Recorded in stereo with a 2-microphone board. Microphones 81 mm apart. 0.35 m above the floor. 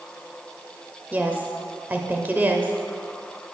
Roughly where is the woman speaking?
Right.